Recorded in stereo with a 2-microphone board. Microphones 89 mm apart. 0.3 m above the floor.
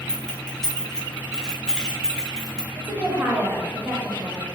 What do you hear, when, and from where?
0.1 s keys jangling: 5° left (ahead or behind), 0.6 m
2.8 s a woman speaking: 20° right (ahead or behind), 0.9 m